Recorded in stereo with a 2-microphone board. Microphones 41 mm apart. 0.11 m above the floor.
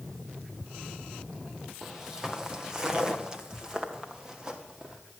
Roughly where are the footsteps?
Centre.